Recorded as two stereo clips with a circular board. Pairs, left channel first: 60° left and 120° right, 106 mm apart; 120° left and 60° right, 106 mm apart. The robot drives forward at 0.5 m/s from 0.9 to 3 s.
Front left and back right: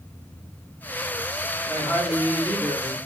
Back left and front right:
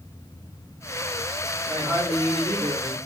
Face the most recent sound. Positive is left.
turn(degrees=-85)